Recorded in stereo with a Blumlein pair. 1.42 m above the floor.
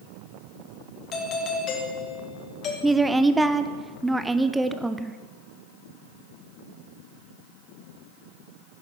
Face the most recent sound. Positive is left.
turn(degrees=-5)